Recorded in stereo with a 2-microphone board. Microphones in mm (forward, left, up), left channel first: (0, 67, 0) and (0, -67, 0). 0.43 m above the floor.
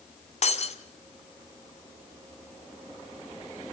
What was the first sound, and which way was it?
Breaking glass, 55° left (ahead or behind).